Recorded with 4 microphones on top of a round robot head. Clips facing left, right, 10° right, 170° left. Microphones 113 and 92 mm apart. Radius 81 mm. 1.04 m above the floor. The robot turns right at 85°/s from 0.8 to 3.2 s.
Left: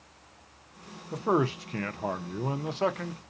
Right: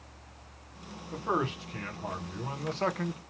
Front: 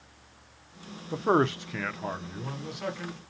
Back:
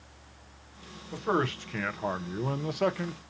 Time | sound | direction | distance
1.1 | a man speaking | 20° left | 0.6 m